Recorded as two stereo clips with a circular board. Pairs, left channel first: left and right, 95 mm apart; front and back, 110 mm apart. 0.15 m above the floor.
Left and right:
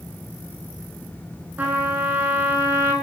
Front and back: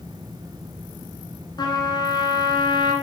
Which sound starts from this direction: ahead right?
A trumpet, at 1.6 s.